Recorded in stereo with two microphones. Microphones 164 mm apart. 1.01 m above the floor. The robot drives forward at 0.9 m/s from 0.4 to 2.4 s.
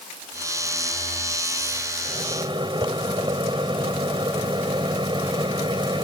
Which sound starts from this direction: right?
A microwave, at 2.0 s.